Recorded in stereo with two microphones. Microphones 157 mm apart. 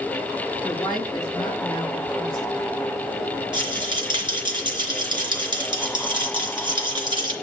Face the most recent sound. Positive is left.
turn(degrees=-30)  # may be behind; listen again after turning